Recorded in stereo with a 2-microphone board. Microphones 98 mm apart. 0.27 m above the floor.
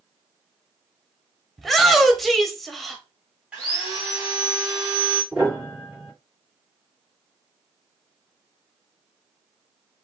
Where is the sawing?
10° right (ahead or behind), 3.5 m.